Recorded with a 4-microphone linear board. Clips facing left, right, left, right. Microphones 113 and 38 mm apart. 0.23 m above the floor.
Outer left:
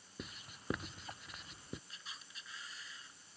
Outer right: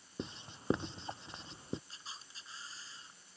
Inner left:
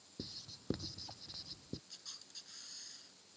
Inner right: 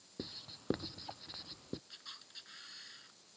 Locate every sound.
0.2 s writing: 30° right (ahead or behind)
1.9 s a camera shutter: 30° right (ahead or behind)